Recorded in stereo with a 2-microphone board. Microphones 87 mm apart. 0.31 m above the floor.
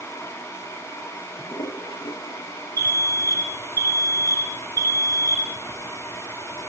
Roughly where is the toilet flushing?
Left.